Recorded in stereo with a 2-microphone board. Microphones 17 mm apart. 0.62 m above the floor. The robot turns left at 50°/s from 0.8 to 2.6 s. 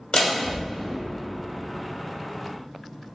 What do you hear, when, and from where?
0.1 s a door slam: 55° left (ahead or behind), 1.8 m; by 0.9 s 60° left (ahead or behind), 1.8 m